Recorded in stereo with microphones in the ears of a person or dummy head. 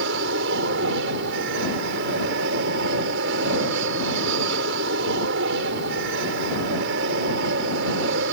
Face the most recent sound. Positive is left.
turn(degrees=-65)  # may be behind; listen again after turning